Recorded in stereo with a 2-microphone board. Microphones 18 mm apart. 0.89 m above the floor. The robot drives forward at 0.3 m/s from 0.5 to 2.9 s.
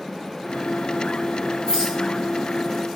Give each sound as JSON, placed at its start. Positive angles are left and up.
{"t": 1.7, "sound": "a rattle", "side_deg": 40, "distance_m": 1.9}